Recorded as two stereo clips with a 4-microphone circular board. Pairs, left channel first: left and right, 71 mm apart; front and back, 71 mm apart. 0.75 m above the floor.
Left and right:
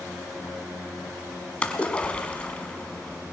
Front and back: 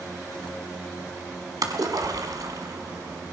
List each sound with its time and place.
1.6 s a splash: 160° left, 1.5 m